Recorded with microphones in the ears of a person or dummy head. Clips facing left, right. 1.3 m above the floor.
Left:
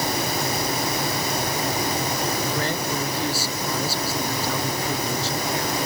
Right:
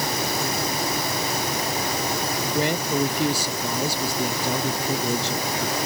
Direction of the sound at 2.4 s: 15° right (ahead or behind).